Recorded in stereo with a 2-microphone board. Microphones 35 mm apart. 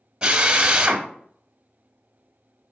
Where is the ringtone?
No ringtone in this recording.